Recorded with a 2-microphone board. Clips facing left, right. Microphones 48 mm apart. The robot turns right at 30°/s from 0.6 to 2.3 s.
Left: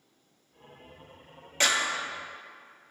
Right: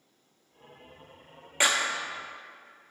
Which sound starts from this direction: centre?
A clap, at 1.6 s.